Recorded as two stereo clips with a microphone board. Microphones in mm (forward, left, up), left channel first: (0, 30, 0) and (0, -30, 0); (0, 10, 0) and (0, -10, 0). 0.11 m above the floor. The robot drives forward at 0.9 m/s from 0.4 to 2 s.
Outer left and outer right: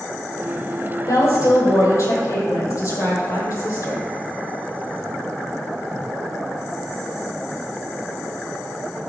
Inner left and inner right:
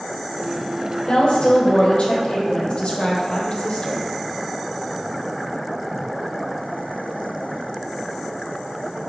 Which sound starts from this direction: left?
A woman speaking, at 1.1 s.